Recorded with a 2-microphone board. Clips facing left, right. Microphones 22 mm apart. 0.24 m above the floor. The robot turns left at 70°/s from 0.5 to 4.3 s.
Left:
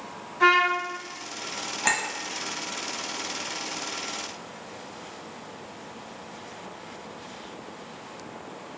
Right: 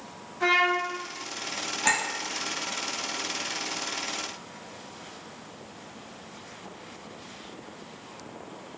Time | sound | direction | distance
0.4 | a trumpet | 45° left (ahead or behind) | 1.2 m
1.8 | a clink | 5° left (ahead or behind) | 0.8 m